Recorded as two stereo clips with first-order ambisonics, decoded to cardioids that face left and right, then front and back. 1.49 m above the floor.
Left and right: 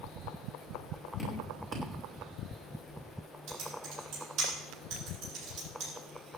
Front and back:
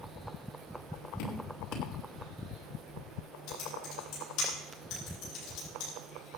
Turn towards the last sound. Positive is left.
turn(degrees=-40)